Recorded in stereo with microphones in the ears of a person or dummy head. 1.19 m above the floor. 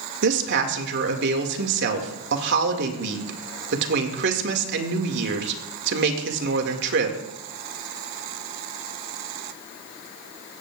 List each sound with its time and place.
0.2 s a woman speaking: 65° right (ahead or behind), 2 m